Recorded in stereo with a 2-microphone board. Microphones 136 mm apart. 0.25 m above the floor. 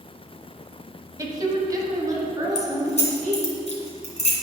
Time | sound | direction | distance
1.2 | a woman speaking | 25° right (ahead or behind) | 1.2 m
2.5 | keys jangling | 55° left (ahead or behind) | 1.6 m